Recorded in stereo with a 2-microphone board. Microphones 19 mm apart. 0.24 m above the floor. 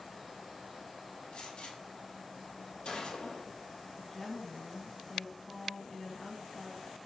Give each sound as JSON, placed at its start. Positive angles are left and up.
{"t": 1.3, "sound": "a gunshot", "side_deg": 60, "distance_m": 3.5}
{"t": 4.0, "sound": "a woman speaking", "side_deg": 15, "distance_m": 1.9}